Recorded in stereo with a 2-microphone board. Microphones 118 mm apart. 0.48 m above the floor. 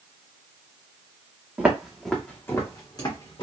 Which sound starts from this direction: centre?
Footsteps, at 1.6 s.